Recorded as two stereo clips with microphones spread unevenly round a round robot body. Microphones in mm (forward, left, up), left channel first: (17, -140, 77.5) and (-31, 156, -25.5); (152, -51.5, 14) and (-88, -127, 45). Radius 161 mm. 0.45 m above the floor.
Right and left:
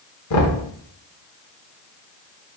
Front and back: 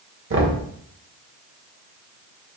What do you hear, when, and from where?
0.3 s knocking: 130° right, 1.6 m